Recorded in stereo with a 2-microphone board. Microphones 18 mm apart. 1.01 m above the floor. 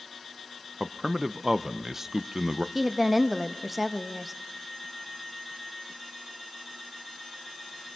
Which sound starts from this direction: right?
A man speaking, at 0.8 s.